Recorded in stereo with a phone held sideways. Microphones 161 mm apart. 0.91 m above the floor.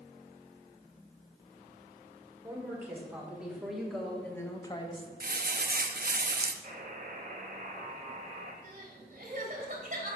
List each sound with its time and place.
2.4 s a woman speaking: 10° right (ahead or behind), 3 m; by 5.1 s 40° left (ahead or behind), 0.9 m
5.2 s crumpling: 60° right (ahead or behind), 0.5 m
6.6 s a buzzer: 50° right (ahead or behind), 1.4 m
8.6 s crying: 55° right (ahead or behind), 1.6 m